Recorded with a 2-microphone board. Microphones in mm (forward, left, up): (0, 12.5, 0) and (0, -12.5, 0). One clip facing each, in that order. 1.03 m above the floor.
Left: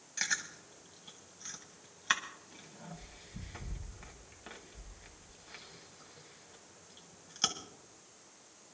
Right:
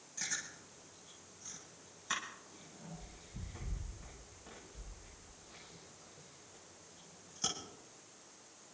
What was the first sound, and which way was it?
Chewing, 65° left (ahead or behind).